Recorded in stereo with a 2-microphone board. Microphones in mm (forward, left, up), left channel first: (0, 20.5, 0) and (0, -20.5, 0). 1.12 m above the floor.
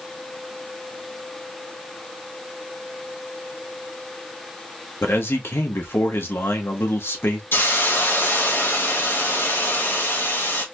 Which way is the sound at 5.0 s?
75° left (ahead or behind).